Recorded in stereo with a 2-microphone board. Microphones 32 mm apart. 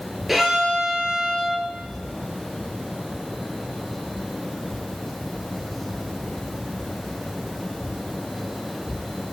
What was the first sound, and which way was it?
A violin, 5° right (ahead or behind).